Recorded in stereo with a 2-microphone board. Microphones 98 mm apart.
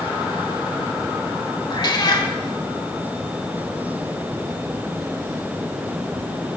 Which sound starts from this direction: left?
A cat meowing, at 1.7 s.